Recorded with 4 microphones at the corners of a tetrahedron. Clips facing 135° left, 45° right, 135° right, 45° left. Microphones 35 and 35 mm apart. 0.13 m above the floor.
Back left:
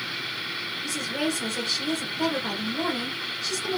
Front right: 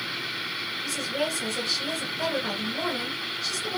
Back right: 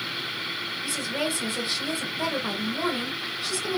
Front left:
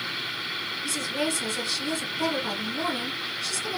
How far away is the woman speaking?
About 1.7 m.